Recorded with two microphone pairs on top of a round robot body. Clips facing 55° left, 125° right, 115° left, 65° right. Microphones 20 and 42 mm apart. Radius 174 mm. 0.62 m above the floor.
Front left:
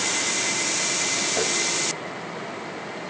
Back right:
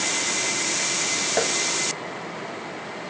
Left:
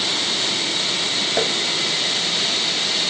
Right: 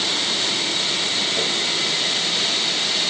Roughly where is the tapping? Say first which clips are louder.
Back right 3 dB, left 2 dB; behind left.